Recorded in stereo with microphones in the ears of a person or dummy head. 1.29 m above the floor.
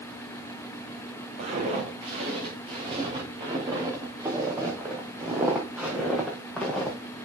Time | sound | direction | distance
1.4 | footsteps | 35° right (ahead or behind) | 4.5 m